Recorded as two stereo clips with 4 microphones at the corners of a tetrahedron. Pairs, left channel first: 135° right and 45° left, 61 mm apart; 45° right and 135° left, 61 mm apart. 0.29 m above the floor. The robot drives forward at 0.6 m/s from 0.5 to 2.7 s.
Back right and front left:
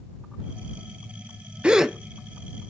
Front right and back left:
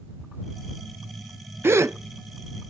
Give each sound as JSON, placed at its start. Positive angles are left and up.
{"t": 1.6, "sound": "a gasp", "azimuth_deg": 110, "distance_m": 0.5}